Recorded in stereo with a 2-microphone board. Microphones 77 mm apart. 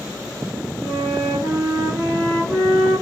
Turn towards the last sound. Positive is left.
turn(degrees=10)  # may be behind; listen again after turning